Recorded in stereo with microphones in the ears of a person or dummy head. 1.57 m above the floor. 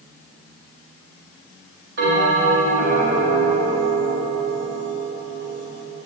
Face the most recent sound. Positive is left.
turn(degrees=-60)  # may be behind; listen again after turning